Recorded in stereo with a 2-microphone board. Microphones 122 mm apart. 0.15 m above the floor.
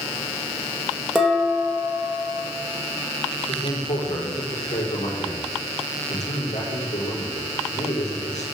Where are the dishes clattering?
5° right (ahead or behind), 4 m.